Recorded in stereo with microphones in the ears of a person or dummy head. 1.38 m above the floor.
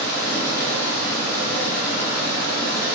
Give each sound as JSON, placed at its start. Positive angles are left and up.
{"t": 0.0, "sound": "running water", "side_deg": 15, "distance_m": 1.2}